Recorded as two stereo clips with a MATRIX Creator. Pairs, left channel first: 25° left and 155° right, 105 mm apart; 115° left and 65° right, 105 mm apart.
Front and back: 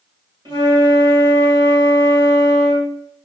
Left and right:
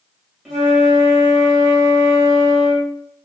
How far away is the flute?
About 1.2 m.